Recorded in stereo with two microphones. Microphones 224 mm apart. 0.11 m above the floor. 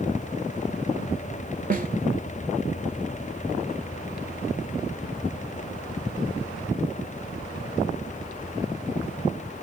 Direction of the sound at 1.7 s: 40° right (ahead or behind).